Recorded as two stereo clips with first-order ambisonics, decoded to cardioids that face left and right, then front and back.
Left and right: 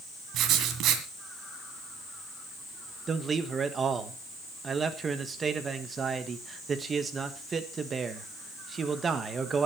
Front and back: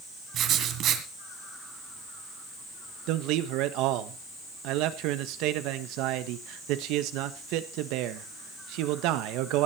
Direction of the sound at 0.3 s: 130° right.